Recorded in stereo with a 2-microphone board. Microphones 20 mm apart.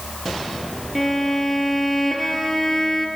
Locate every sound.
0.9 s a violin: 15° left (ahead or behind), 3 m